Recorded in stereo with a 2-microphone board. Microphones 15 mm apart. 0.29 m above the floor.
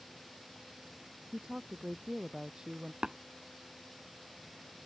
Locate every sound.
1.3 s a woman speaking: 50° right (ahead or behind)
3.0 s tapping: 65° right (ahead or behind)